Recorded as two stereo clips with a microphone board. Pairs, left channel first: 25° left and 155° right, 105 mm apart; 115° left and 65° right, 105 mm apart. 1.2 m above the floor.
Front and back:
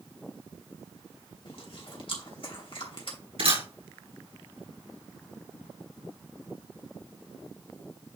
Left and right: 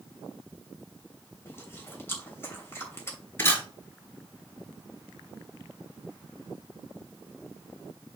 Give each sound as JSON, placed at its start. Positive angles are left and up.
{"t": 1.4, "sound": "chewing", "azimuth_deg": 45, "distance_m": 2.5}
{"t": 3.4, "sound": "a camera shutter", "azimuth_deg": 180, "distance_m": 6.0}